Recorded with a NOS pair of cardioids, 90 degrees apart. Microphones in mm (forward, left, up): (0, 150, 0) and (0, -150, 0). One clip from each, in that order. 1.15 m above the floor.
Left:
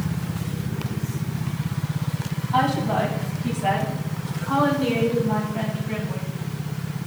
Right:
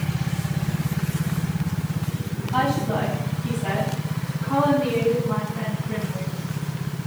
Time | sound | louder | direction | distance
2.5 | a woman speaking | left 2 dB | 25° left | 6 m